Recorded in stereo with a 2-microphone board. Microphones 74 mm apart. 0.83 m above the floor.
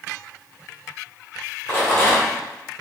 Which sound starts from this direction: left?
A rattle, at 1.7 s.